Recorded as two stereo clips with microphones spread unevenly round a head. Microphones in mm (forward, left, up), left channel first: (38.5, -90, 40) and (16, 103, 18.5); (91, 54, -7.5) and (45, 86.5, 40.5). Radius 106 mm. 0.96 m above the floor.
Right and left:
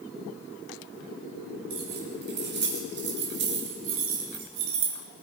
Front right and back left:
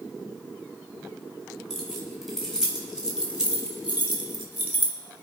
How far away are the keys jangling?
About 4 m.